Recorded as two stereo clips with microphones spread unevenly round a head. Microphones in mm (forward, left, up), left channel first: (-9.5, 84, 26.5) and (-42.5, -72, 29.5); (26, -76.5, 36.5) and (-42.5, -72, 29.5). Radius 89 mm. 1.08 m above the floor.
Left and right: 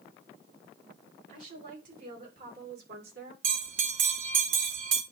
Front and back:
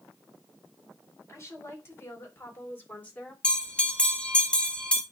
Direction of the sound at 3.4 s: 80° right.